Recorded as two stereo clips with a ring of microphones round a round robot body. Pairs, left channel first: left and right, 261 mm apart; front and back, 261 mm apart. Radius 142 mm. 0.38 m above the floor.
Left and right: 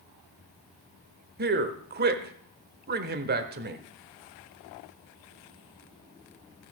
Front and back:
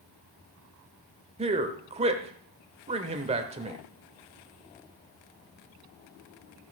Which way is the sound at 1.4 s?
125° right.